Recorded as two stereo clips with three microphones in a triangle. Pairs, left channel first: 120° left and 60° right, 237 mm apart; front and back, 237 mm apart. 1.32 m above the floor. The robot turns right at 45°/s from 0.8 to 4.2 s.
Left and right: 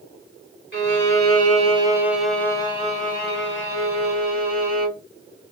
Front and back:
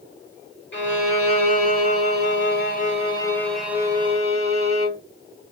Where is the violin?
35° right, 1.8 m; by 5.0 s 120° left, 1.8 m.